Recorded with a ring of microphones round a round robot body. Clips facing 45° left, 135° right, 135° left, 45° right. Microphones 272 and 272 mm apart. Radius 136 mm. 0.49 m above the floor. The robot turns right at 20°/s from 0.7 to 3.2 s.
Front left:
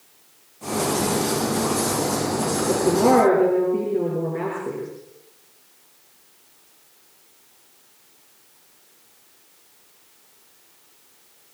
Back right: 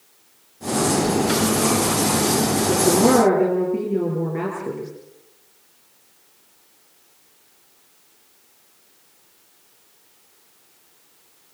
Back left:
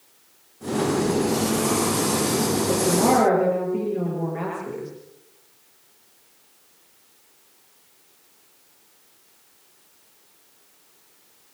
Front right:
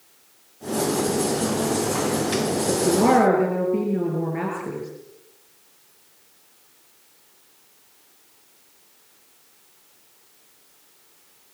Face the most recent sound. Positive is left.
turn(degrees=-70)